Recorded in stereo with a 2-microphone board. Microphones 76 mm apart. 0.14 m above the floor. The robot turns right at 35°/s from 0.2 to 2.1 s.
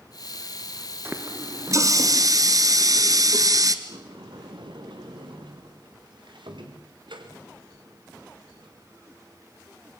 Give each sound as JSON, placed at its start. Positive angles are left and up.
{"t": 1.1, "sound": "a running tap", "azimuth_deg": -150, "distance_m": 1.4}
{"t": 3.9, "sound": "a sliding door", "side_deg": -90, "distance_m": 3.5}